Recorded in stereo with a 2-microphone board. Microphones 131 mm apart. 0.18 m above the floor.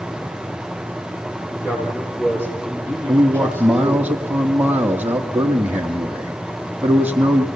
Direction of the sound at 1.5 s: 20° left (ahead or behind).